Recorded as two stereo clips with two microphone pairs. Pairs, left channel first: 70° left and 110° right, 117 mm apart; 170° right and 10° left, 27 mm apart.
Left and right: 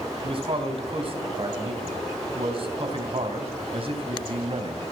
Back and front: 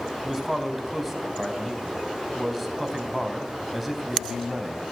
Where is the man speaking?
80° right, 3 m.